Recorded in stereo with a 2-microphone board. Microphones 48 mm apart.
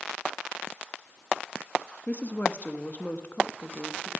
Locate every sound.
2.1 s a woman speaking: 35° left (ahead or behind), 0.9 m